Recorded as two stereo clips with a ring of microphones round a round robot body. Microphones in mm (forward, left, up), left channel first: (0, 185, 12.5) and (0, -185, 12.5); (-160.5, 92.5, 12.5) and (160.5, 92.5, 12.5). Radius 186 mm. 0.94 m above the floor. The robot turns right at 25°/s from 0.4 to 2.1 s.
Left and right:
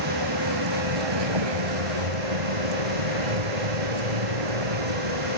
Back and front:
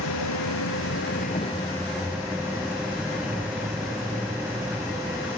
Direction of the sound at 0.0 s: 130° right.